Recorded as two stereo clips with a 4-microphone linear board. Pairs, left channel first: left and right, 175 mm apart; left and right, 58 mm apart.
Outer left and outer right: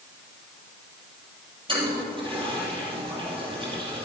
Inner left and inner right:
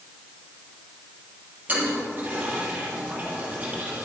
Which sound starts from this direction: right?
A toilet flushing, at 1.7 s.